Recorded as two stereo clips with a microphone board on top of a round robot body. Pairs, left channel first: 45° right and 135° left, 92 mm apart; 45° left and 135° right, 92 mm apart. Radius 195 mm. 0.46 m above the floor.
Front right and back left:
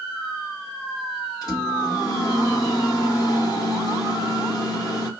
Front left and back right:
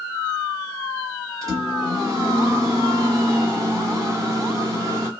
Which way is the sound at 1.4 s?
85° right.